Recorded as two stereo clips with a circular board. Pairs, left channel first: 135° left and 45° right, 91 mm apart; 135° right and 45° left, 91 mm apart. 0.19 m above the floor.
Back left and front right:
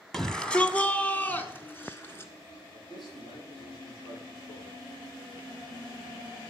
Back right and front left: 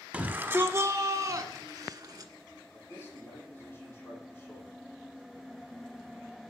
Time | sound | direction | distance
0.1 | a shout | 60° left | 1.0 m
2.7 | a man speaking | 160° left | 8 m